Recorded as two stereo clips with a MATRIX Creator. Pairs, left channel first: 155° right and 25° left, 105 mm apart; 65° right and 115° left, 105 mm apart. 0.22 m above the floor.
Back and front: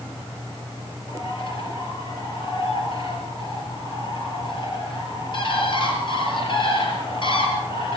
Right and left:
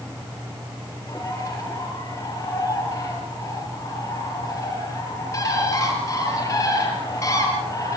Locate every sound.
1.1 s a bird: 125° right, 5.5 m